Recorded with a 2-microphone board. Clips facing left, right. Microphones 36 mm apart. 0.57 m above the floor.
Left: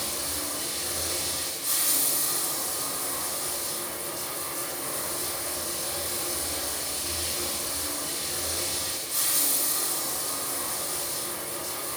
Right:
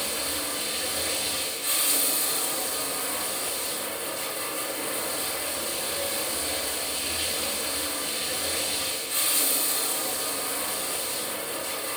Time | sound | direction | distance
0.0 | running water | 55° right (ahead or behind) | 6.5 m